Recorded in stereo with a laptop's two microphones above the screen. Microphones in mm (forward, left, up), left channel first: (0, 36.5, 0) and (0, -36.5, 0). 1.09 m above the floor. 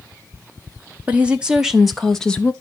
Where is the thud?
No thud in this recording.